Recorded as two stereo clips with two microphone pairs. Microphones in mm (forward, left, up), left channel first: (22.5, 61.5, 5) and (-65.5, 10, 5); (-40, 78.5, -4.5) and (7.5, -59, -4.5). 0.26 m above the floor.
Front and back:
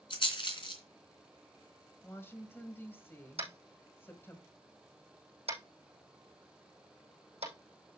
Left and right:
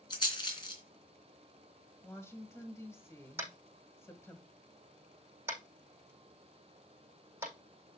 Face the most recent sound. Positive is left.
turn(degrees=-145)